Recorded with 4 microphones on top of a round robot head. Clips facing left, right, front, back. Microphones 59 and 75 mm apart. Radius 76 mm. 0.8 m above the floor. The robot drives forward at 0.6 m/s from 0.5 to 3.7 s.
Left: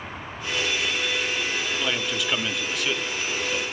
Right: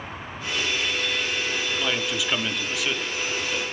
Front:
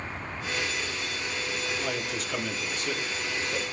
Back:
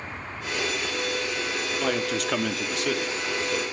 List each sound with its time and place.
1.8 s a man speaking: 175° right, 1.5 m; by 3.6 s straight behind, 2.5 m